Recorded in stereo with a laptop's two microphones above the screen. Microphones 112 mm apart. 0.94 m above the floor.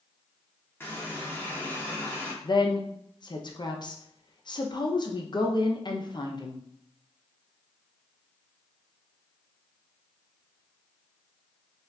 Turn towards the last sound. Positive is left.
turn(degrees=40)  # may be behind; listen again after turning